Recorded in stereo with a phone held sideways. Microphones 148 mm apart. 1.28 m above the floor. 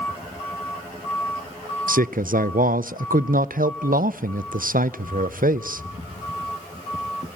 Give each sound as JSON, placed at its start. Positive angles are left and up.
{"t": 1.9, "sound": "a man speaking", "side_deg": -70, "distance_m": 0.5}